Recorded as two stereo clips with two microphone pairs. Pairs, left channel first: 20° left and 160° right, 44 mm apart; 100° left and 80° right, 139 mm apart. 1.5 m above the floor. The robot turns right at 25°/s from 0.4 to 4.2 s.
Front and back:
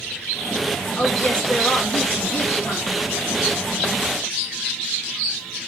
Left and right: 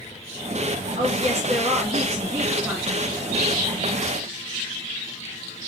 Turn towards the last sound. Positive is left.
turn(degrees=35)